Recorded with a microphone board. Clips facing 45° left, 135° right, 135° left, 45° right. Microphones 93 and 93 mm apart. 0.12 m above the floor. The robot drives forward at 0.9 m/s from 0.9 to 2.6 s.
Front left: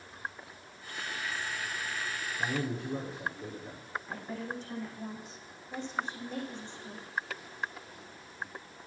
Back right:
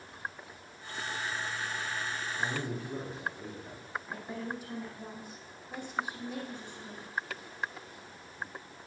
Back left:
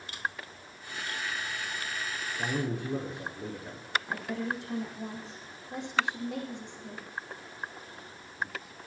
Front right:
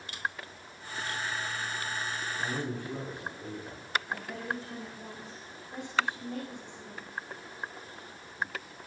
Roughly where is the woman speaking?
Behind left.